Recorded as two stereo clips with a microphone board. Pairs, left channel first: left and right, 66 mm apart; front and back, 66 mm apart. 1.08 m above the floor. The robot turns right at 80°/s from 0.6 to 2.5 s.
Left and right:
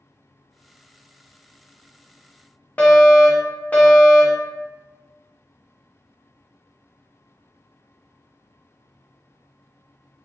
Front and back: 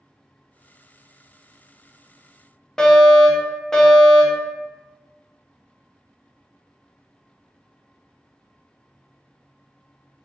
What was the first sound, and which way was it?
A fire alarm, 65° left.